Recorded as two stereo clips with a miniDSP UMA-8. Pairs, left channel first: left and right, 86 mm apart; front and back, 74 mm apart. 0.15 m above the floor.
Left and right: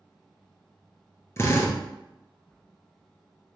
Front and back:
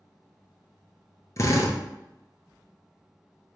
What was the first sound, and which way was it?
A drill, 35° left.